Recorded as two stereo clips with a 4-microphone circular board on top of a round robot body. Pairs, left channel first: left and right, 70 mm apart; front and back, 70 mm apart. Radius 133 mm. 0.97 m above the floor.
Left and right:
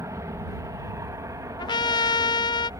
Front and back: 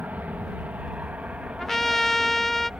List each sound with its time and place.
0.0 s an aircraft: 115° right; by 2.8 s 105° right
1.6 s a trumpet: 85° left